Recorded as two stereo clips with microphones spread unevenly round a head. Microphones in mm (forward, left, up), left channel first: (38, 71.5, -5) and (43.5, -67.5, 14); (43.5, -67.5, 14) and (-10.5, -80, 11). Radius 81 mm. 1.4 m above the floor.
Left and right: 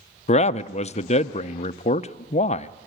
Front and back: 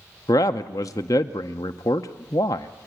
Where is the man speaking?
50° left, 0.6 m.